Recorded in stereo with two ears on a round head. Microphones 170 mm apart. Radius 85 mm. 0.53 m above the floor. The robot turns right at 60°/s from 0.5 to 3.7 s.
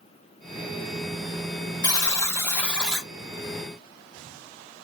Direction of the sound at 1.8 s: 20° left (ahead or behind).